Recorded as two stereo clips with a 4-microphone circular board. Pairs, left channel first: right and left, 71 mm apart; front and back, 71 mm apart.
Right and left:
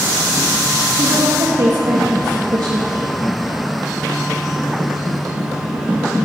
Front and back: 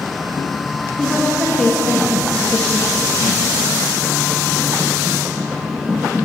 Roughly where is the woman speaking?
Left.